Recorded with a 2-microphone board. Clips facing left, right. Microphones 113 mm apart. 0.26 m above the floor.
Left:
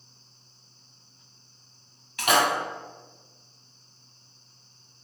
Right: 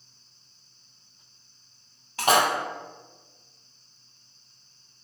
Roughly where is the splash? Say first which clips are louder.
Right 1 dB; right.